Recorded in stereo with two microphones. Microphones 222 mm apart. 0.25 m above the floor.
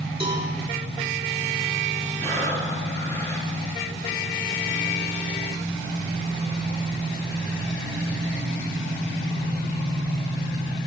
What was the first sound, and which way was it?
A cowbell, 25° right (ahead or behind).